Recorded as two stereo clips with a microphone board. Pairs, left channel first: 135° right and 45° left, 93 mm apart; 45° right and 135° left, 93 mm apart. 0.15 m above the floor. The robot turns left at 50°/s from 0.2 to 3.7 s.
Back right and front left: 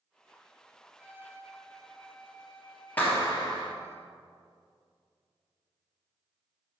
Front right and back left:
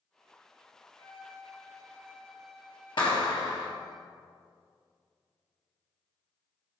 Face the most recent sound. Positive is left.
turn(degrees=-100)